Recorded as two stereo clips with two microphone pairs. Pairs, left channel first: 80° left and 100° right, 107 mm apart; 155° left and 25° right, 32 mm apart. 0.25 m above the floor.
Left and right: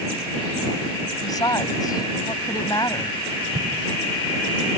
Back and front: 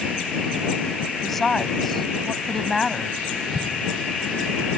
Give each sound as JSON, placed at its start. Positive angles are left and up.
{"t": 1.2, "sound": "a woman speaking", "azimuth_deg": 75}
{"t": 3.5, "sound": "an explosion", "azimuth_deg": -115}